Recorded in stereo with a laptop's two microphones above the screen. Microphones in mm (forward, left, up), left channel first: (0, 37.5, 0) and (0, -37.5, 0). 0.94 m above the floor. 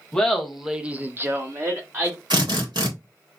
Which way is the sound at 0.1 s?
5° left (ahead or behind).